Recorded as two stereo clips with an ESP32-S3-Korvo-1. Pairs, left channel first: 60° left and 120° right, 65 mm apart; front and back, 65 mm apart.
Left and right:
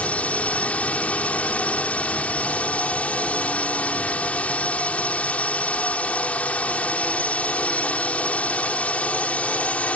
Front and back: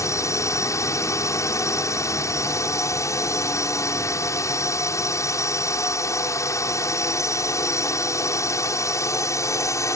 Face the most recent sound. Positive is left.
turn(degrees=-5)